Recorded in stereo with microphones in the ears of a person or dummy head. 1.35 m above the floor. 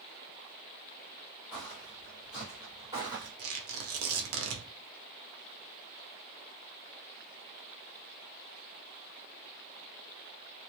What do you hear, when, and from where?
1.5 s footsteps: 10° left (ahead or behind), 1.5 m; by 3.3 s 20° right (ahead or behind), 2 m
3.4 s tearing paper: 70° right (ahead or behind), 0.9 m